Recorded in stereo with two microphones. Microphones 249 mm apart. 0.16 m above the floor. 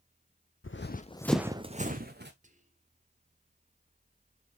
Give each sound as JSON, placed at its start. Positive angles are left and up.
{"t": 0.6, "sound": "running footsteps", "side_deg": 60, "distance_m": 0.7}
{"t": 2.4, "sound": "whispering", "side_deg": -30, "distance_m": 1.7}